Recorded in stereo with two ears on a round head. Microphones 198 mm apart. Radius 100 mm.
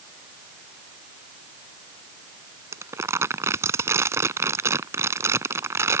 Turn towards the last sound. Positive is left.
turn(degrees=-15)  # may be behind; listen again after turning